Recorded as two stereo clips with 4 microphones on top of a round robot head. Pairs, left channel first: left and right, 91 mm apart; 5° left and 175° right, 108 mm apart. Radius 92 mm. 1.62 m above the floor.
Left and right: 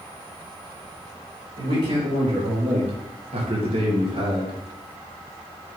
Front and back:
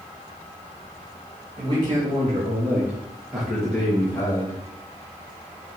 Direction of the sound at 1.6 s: 120° right.